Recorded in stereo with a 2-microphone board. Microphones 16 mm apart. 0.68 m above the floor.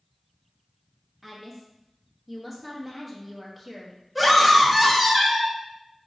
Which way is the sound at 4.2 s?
Centre (ahead or behind).